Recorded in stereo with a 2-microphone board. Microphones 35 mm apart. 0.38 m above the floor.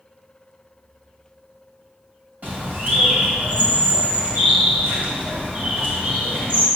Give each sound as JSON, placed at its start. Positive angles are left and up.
{"t": 2.4, "sound": "a bird", "side_deg": -55, "distance_m": 2.5}